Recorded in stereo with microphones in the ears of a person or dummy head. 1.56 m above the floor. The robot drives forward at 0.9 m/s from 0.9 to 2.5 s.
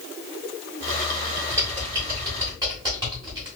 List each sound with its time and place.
1.5 s typing on a keyboard: 15° right (ahead or behind), 1.3 m